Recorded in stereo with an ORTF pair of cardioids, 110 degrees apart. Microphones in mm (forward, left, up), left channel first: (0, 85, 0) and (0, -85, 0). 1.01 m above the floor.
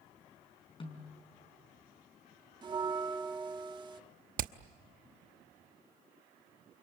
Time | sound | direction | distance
0.8 | a snare drum | 30° left | 4.5 m
2.6 | a bell | 25° right | 1.4 m
4.4 | hammering | 60° right | 1.0 m